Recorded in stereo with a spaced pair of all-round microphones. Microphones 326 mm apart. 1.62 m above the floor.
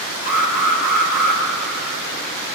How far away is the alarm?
About 6 m.